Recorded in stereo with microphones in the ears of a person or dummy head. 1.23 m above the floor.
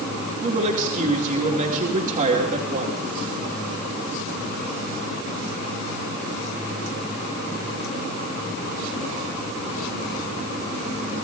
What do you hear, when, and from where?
0.4 s a woman speaking: 40° right (ahead or behind), 2.5 m